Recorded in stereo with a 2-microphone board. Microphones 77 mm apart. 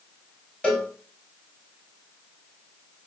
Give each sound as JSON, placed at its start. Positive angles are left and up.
{"t": 0.6, "sound": "a cowbell", "side_deg": 10, "distance_m": 0.9}